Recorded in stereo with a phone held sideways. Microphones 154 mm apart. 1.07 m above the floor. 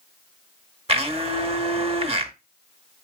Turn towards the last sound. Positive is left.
turn(degrees=-40)  # may be behind; listen again after turning